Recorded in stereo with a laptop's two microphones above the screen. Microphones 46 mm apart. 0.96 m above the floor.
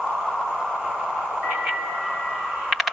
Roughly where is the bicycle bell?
Right.